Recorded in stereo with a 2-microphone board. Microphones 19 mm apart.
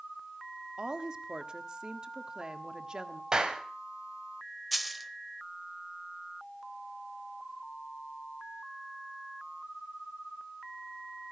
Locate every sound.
0.8 s a woman speaking: 45° right (ahead or behind), 1.3 m
3.3 s a clap: 35° right (ahead or behind), 2 m
4.7 s a dropped coin: 5° right (ahead or behind), 1.0 m